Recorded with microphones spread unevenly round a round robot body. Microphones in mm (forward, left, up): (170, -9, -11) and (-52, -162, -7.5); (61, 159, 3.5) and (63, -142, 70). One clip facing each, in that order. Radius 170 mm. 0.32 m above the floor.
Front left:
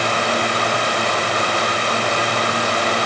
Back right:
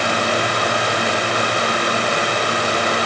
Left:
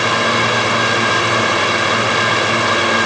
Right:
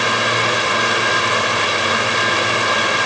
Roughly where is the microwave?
No microwave in this recording.